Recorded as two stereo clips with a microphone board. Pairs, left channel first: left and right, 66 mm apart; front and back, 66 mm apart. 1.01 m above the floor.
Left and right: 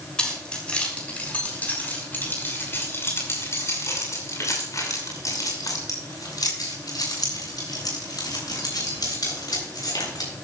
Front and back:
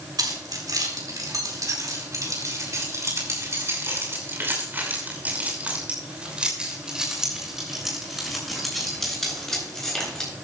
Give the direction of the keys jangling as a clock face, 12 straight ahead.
6 o'clock.